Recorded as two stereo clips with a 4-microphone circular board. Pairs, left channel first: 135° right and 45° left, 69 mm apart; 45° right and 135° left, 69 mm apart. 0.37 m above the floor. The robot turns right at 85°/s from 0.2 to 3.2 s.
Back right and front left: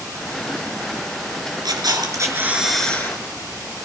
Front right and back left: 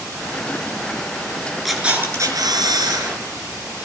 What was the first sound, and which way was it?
A camera shutter, 40° left.